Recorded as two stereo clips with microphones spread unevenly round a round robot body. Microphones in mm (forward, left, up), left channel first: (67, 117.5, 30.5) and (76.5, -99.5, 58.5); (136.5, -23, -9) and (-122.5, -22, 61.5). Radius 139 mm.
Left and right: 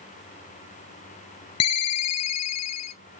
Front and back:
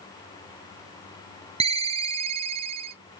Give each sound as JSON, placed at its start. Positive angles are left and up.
{"t": 1.6, "sound": "a ringtone", "azimuth_deg": 115, "distance_m": 0.7}